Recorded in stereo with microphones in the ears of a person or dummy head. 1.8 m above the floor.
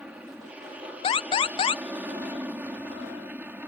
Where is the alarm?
30° left (ahead or behind).